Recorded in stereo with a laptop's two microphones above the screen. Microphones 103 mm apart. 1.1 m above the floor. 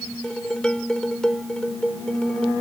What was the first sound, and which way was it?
Dishes clattering, 10° left (ahead or behind).